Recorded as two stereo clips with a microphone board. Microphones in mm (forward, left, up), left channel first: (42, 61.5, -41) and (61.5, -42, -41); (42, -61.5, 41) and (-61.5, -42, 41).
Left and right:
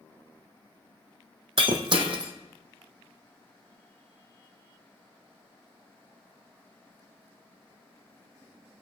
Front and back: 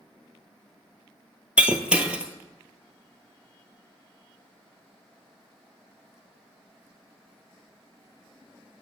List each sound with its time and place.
1.6 s breaking glass: 110° right, 1.1 m